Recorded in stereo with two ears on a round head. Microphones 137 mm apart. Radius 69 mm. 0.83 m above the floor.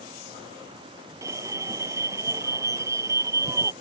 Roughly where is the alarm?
Right.